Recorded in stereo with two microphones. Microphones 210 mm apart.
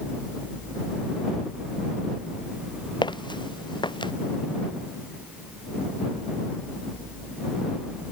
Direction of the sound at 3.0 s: 20° left (ahead or behind).